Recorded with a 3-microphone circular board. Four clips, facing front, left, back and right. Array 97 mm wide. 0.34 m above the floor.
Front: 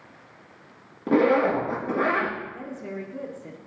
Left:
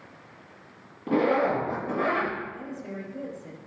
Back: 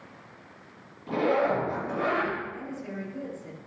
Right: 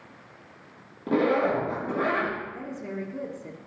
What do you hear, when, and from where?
1.1 s a zipper: 10° right, 3.5 m
2.5 s a woman speaking: 55° right, 3 m